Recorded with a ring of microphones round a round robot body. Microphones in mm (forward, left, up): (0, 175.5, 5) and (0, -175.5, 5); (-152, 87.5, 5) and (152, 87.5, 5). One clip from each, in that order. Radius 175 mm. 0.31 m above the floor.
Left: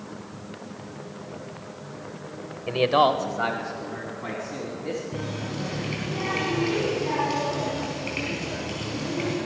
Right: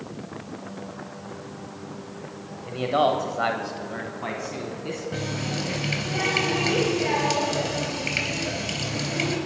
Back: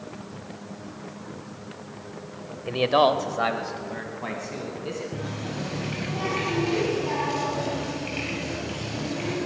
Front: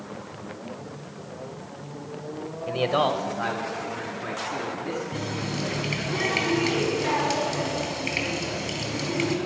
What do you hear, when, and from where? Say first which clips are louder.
2.7 s a man speaking: left 2 dB, back 3 dB; 100° left, 1.0 m; by 5.0 s 140° right, 3 m
5.1 s a running tap: right 3 dB, front 3 dB; 50° right, 4 m